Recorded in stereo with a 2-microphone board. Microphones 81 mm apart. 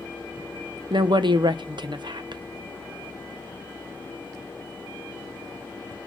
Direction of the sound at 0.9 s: 70° right (ahead or behind).